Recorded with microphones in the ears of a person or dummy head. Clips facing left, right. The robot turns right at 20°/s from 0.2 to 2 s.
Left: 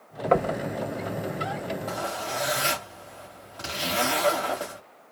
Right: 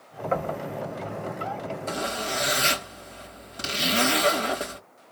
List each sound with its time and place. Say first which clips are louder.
0.3 s knocking: left 5 dB; 65° left (ahead or behind), 1.0 m; by 0.6 s 70° left (ahead or behind), 1.0 m
1.9 s a zipper: right 1 dB; 30° right (ahead or behind), 1.2 m